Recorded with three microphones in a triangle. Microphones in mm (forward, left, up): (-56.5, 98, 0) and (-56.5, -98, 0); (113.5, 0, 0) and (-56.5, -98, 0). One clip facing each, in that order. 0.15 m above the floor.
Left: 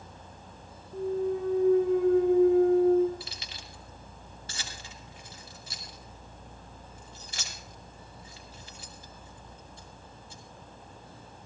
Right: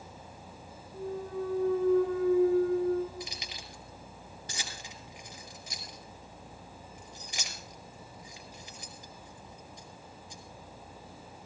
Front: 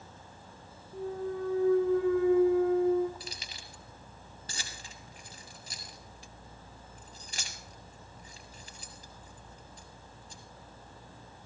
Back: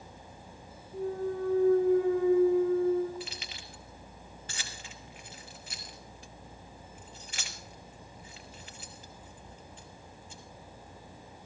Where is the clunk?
95° left, 2.5 m.